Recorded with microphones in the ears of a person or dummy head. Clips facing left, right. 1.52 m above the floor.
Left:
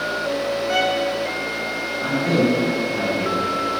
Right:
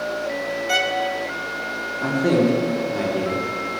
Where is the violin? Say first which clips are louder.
Left 2 dB; 65° right (ahead or behind), 1.0 m.